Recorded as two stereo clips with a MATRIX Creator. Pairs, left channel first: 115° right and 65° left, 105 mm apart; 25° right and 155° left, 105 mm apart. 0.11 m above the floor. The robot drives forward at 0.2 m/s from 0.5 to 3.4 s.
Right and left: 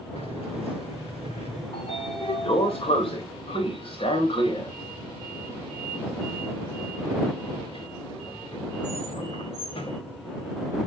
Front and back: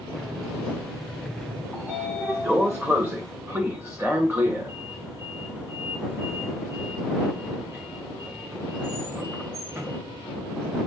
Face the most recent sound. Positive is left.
turn(degrees=-135)